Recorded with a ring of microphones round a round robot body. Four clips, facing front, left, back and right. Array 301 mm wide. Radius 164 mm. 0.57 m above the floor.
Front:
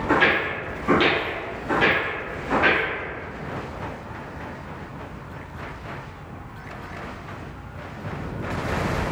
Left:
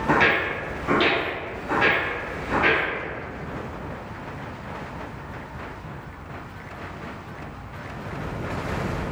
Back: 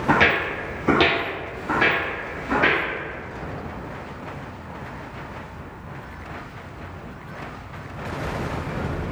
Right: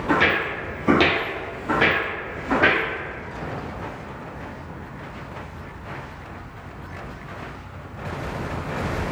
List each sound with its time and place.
0.1 s footsteps: 170° left, 0.9 m; by 2.8 s 95° right, 2 m